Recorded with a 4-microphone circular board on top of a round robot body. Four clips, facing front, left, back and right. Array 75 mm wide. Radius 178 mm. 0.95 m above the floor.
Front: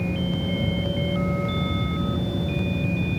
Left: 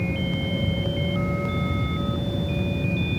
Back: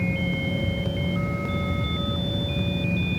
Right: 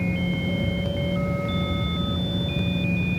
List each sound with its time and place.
Only background noise.